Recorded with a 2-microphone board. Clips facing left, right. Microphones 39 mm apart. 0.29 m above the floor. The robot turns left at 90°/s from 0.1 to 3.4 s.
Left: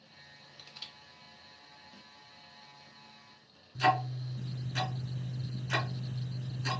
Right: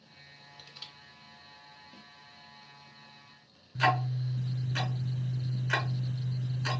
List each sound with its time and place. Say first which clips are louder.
0.6 s crushing: left 1 dB; 5° right (ahead or behind), 0.8 m; by 0.9 s 10° left (ahead or behind), 0.8 m
1.9 s a snare drum: right 2 dB; 25° right (ahead or behind), 1.0 m; by 2.1 s 35° right (ahead or behind), 1.0 m
3.8 s ticking: right 1 dB; 35° right (ahead or behind), 1.3 m